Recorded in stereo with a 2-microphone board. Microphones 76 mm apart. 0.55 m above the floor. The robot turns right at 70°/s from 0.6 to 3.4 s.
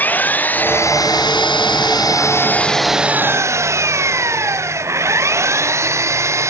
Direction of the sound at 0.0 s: 25° left.